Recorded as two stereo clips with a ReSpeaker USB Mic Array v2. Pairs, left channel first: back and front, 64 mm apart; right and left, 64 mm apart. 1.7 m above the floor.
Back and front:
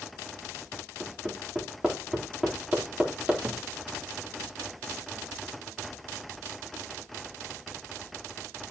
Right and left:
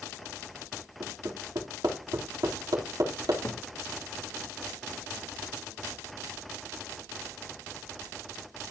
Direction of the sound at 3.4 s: 50° right.